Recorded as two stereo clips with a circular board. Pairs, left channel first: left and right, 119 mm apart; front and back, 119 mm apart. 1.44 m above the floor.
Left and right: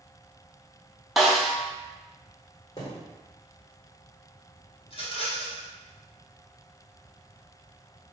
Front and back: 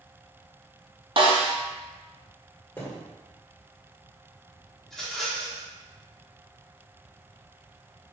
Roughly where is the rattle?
Left.